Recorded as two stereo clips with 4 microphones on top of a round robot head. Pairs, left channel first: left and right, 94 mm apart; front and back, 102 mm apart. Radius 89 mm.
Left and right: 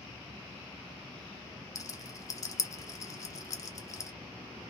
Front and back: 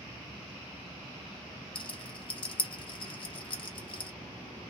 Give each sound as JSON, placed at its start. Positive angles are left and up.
{"t": 1.8, "sound": "a rattle", "azimuth_deg": 35, "distance_m": 1.0}